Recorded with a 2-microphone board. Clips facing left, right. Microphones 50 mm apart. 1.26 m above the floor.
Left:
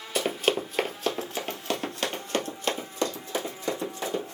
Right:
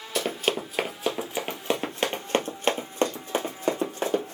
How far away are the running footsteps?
About 1.5 m.